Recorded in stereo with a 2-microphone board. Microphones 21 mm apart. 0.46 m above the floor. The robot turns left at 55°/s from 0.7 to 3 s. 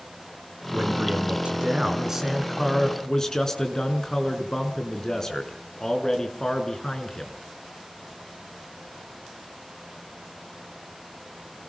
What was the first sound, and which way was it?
A man speaking, 75° right.